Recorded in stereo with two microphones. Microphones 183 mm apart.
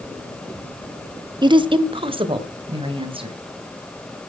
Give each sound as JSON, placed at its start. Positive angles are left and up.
{"t": 1.4, "sound": "a woman speaking", "side_deg": -25, "distance_m": 1.0}